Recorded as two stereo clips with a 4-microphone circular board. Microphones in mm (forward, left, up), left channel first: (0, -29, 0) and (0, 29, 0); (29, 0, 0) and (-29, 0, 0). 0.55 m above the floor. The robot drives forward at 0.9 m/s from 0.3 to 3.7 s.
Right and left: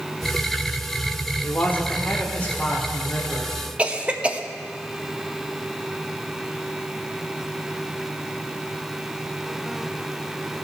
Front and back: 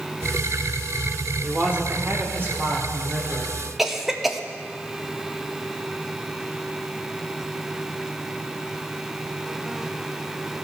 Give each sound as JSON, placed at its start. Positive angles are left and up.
{"t": 1.4, "sound": "a man speaking", "azimuth_deg": -105, "distance_m": 1.3}
{"t": 3.8, "sound": "a cough", "azimuth_deg": 100, "distance_m": 0.6}